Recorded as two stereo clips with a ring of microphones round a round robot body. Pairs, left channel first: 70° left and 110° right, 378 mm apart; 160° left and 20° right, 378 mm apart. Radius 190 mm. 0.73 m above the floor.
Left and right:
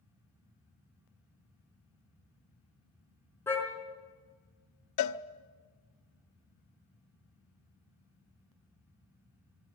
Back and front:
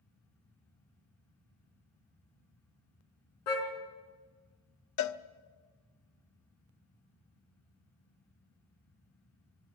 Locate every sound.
3.5 s a car horn: 150° left, 4 m
5.0 s a cowbell: 110° left, 0.7 m